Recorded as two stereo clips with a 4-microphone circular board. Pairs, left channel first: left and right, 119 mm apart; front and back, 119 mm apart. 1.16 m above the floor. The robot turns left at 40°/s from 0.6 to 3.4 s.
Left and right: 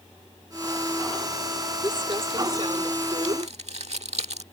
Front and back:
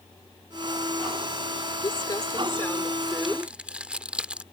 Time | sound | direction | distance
1.8 | crumpling | 35° right | ?